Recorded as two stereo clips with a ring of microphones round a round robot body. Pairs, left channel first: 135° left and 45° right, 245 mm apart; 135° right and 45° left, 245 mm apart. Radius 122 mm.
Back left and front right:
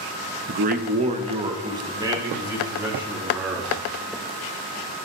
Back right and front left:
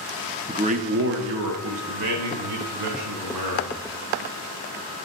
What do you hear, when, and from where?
0.5 s a man speaking: 25° right, 0.5 m; by 3.8 s 40° left, 2 m